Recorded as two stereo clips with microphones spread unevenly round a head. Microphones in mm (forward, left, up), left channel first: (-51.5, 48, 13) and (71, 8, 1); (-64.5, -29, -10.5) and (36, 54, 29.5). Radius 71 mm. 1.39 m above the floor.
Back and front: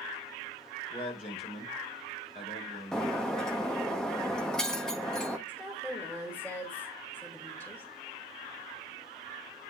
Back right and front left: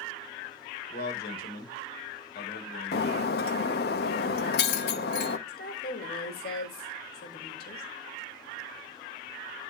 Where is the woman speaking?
120° right, 4 m.